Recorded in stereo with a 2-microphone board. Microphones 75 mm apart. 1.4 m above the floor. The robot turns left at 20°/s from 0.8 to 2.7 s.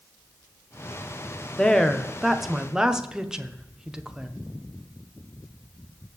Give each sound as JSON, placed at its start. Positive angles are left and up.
{"t": 1.6, "sound": "a woman speaking", "side_deg": 10, "distance_m": 1.0}